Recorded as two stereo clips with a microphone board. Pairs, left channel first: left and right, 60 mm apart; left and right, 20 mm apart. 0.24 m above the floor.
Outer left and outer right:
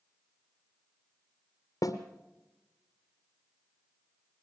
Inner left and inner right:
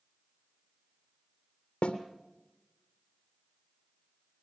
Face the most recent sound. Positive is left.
turn(degrees=75)  # may be behind; listen again after turning